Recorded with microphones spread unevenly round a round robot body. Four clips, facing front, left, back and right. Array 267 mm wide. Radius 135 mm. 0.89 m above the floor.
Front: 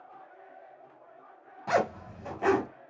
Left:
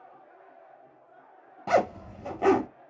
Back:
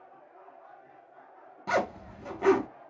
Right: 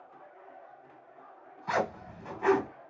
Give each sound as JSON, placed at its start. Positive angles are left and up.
{"t": 1.7, "sound": "a zipper", "azimuth_deg": 100, "distance_m": 1.3}